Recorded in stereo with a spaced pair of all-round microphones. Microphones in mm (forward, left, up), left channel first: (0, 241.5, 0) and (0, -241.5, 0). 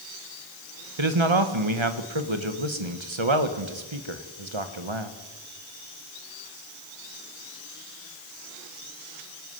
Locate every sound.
1.0 s a man speaking: 70° right (ahead or behind), 1.6 m